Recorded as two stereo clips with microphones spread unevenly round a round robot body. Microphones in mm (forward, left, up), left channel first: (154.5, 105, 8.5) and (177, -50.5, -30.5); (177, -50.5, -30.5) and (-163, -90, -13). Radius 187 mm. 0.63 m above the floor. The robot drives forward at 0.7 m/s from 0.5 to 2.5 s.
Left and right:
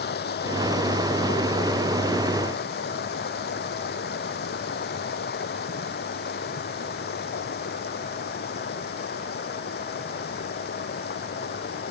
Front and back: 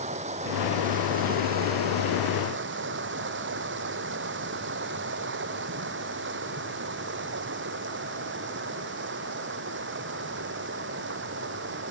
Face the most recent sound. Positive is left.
turn(degrees=125)